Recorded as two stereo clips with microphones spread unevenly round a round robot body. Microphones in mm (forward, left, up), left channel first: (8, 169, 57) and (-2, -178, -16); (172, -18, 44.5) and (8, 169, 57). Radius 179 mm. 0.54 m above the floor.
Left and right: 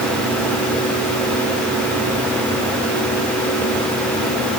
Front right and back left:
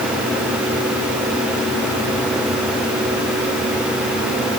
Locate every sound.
Only background noise.